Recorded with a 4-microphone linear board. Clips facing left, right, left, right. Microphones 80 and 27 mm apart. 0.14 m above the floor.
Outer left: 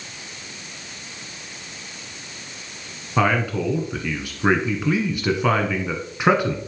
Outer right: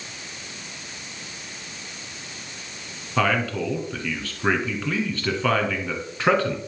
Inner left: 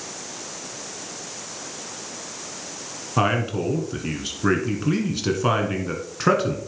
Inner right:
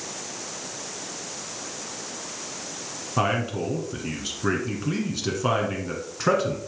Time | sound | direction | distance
3.2 | a man speaking | 15° left (ahead or behind) | 1.3 m